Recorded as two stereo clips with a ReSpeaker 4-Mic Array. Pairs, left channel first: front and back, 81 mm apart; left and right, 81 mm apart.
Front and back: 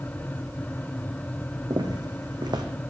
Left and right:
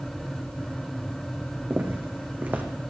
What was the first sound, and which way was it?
Footsteps, 155° right.